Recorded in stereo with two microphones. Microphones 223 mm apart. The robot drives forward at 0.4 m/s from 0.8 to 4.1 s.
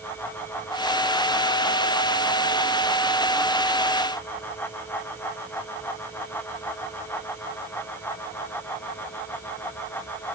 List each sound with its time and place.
Only background noise.